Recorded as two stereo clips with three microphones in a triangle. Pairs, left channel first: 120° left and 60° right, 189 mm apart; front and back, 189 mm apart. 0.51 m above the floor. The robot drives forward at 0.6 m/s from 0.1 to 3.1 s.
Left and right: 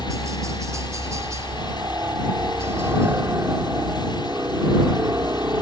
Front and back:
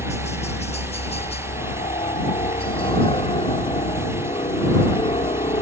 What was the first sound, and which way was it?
A helicopter, straight ahead.